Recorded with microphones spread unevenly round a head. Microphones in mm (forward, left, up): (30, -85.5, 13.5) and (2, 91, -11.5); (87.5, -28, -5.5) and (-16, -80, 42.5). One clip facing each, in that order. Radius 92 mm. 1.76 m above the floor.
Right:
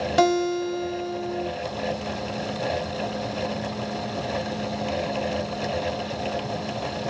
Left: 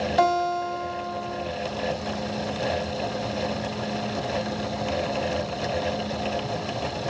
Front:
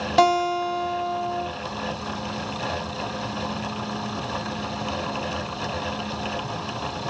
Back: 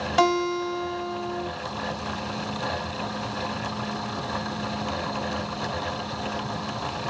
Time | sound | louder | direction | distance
0.2 | a guitar | right 3 dB, front 3 dB | 35° right | 5 m